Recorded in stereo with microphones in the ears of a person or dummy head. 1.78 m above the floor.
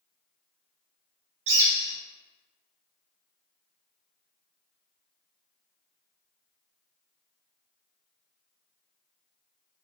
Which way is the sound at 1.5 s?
70° right (ahead or behind).